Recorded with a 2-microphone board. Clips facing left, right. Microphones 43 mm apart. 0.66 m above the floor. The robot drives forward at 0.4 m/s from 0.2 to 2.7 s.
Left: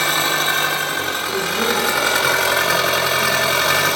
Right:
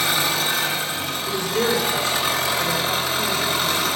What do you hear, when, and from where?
0.0 s an engine running: 45° left (ahead or behind), 1.2 m; by 4.0 s 80° left, 0.9 m
1.3 s a woman speaking: 25° right (ahead or behind), 3 m; by 3.9 s 20° right (ahead or behind), 3.5 m